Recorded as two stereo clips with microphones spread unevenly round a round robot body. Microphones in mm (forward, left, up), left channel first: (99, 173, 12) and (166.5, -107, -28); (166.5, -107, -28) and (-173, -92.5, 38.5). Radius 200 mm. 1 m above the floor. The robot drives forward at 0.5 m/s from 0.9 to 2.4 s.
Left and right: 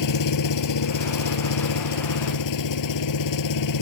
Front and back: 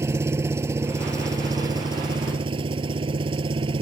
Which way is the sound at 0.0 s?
95° left.